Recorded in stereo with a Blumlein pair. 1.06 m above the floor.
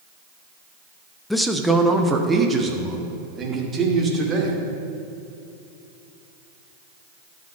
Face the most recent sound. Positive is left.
turn(degrees=-20)